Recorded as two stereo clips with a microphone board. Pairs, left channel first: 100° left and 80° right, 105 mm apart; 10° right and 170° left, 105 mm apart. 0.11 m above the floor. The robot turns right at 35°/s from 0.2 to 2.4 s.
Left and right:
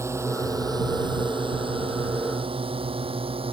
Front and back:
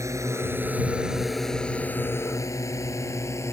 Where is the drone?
135° right; by 3.5 s 70° right.